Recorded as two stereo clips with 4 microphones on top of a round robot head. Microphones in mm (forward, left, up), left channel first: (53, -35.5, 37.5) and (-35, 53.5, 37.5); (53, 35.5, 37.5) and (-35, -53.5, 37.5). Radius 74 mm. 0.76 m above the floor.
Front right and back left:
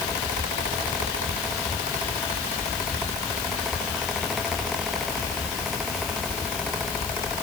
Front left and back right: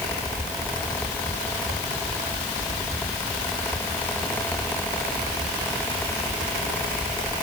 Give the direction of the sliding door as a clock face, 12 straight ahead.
I don't hear a sliding door.